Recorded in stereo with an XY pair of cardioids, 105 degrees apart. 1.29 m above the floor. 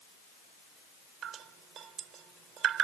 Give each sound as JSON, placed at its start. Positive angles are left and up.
{"t": 1.2, "sound": "dripping", "azimuth_deg": -65}